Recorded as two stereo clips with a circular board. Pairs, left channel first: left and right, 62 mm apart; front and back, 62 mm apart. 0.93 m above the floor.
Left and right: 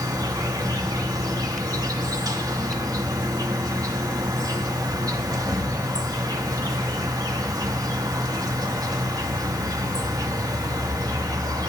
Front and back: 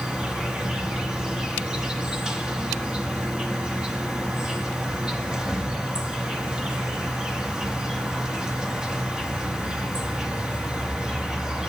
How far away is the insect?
About 0.9 m.